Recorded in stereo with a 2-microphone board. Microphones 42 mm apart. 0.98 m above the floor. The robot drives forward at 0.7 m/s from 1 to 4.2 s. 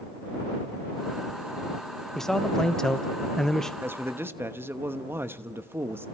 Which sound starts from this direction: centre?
A man speaking, at 2.1 s.